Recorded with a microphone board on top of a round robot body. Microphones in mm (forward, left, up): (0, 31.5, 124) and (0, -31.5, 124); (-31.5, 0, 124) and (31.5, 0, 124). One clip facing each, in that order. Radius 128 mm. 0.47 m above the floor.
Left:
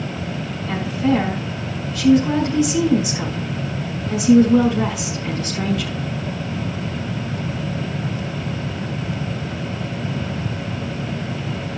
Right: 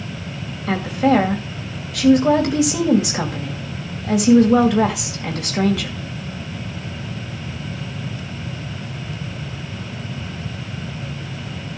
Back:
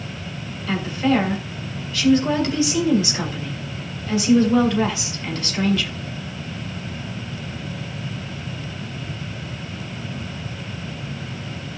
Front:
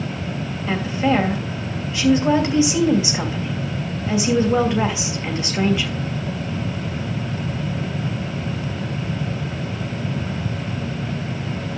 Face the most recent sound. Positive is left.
turn(degrees=-70)